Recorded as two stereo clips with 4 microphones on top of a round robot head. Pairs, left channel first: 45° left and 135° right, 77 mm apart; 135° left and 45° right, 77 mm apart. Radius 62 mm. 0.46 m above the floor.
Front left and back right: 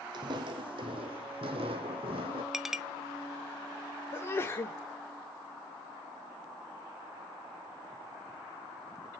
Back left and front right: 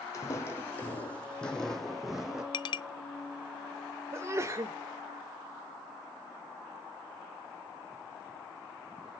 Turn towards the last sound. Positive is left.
turn(degrees=-5)